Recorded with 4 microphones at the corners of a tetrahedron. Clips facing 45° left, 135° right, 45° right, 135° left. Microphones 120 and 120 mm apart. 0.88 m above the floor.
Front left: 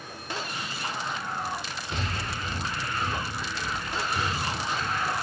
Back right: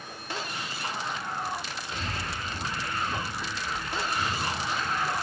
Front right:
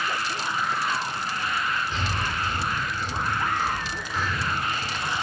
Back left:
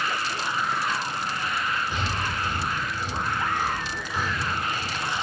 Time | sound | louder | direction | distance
1.9 | breathing | front left 2 dB, even | 60° left | 1.3 m